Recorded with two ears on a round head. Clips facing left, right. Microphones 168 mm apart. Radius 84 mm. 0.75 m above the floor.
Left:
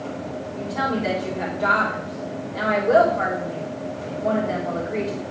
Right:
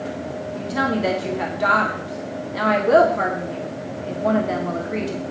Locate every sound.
0.6 s a woman speaking: 65° right (ahead or behind), 1.8 m